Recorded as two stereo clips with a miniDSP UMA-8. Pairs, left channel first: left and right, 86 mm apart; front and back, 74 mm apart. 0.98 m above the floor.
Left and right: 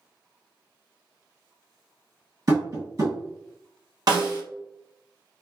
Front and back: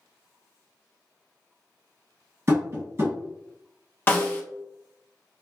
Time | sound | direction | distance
2.5 | tapping | 135° right | 1.8 m
4.1 | a snare drum | 60° right | 0.8 m